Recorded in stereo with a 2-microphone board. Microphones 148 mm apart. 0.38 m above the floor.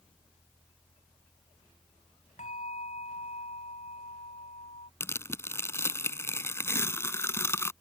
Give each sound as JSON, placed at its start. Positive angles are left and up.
{"t": 2.4, "sound": "a bell", "side_deg": 55}
{"t": 5.0, "sound": "tearing paper", "side_deg": 15}